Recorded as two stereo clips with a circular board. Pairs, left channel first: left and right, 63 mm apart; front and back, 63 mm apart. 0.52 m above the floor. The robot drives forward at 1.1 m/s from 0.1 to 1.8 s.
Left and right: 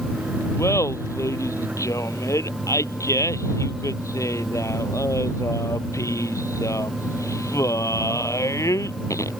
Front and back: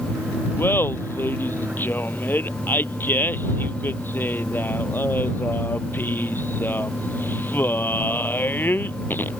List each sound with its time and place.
0.6 s laughter: 55° left; by 9.3 s 60° left